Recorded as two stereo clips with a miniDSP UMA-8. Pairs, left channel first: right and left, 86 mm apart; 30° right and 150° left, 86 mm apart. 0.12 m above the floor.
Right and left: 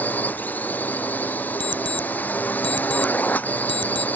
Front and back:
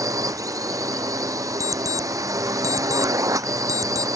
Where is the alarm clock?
105° left.